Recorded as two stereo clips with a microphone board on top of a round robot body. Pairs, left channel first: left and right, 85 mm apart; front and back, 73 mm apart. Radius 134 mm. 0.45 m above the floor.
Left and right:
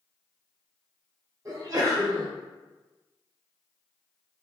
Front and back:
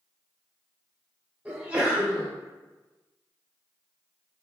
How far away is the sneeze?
About 1.2 m.